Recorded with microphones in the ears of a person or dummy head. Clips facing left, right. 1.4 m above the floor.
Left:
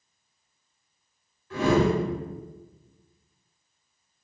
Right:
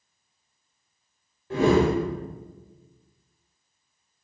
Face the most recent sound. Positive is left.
turn(degrees=-30)  # may be behind; listen again after turning